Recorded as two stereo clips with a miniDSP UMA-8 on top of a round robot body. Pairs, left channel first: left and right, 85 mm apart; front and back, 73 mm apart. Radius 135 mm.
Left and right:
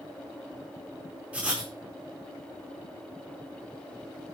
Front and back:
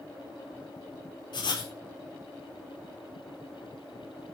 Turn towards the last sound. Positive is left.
turn(degrees=-15)